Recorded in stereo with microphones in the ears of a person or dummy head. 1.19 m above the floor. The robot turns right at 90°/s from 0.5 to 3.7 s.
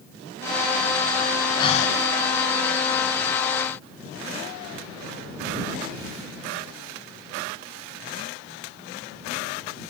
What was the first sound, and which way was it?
Breathing, 30° left.